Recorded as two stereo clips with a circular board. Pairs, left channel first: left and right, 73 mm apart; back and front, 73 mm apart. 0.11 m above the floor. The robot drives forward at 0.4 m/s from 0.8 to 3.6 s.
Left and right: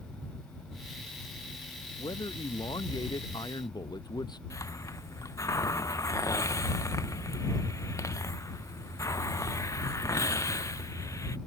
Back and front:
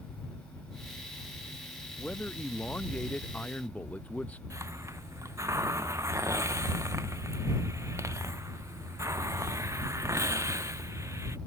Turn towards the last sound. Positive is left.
turn(degrees=45)